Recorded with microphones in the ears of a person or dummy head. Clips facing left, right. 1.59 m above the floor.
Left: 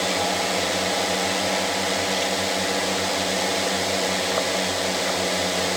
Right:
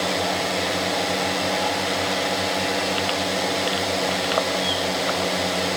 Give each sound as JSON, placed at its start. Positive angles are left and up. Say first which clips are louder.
{"t": 0.0, "sound": "a drone", "louder": "even", "side_deg": -5}